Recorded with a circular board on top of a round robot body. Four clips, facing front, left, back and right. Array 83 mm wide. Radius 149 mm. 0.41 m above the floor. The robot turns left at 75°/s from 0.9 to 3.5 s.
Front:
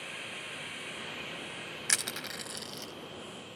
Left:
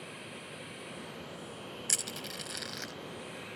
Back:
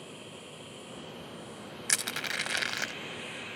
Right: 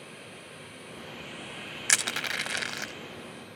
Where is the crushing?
90° right; by 2.9 s 165° right.